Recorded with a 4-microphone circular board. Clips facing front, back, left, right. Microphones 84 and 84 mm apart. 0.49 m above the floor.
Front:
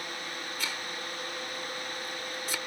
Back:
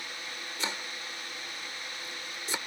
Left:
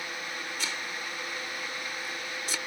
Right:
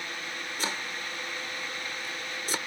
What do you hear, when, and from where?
0.6 s chopping: 125° right